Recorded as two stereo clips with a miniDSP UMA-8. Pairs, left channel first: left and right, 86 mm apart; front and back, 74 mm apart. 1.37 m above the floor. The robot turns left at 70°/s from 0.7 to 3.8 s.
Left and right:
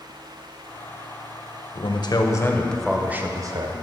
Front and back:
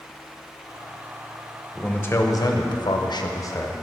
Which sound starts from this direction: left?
A man speaking, at 1.8 s.